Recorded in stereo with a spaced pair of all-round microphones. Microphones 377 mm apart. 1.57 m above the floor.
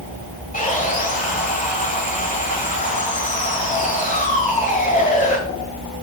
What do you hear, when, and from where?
0.5 s sawing: 20° left (ahead or behind), 1.7 m